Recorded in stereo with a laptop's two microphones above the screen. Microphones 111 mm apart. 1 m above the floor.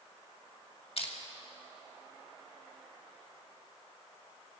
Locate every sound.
1.0 s crushing: 60° left (ahead or behind), 2 m